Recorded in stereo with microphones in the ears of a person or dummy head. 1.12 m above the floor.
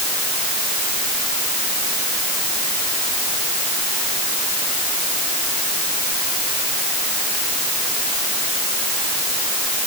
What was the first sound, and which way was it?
Only background noise.